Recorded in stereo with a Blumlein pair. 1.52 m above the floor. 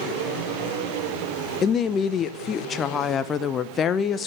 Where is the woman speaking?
25° left, 0.8 m.